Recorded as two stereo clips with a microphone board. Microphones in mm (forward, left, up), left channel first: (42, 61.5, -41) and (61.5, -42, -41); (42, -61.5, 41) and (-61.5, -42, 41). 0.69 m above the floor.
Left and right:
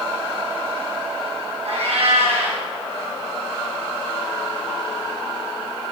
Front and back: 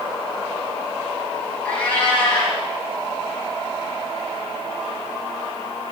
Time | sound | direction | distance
1.6 | a cat meowing | 85° right | 2.5 m